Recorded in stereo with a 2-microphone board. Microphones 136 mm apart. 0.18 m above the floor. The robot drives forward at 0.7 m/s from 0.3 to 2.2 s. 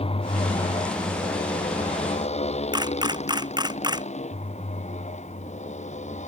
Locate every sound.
0.0 s a motorcycle: 45° left (ahead or behind); by 6.3 s 55° left (ahead or behind)
2.7 s a camera shutter: 30° right (ahead or behind)